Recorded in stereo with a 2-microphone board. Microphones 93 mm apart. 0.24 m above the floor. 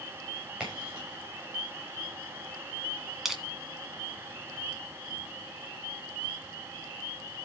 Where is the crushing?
5° right (ahead or behind), 2 m.